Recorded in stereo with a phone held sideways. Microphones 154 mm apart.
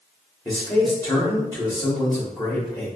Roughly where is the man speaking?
Left.